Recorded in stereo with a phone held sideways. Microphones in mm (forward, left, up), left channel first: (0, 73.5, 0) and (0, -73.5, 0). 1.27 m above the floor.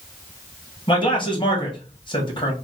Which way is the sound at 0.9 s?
35° left (ahead or behind).